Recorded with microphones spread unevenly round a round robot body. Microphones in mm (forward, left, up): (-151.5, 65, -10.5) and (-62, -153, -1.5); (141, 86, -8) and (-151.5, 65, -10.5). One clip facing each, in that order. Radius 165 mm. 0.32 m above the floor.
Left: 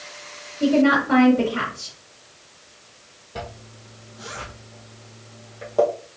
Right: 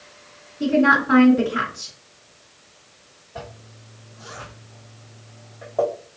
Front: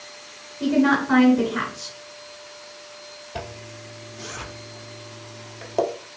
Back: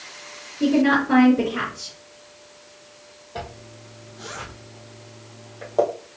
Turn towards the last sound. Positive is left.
turn(degrees=50)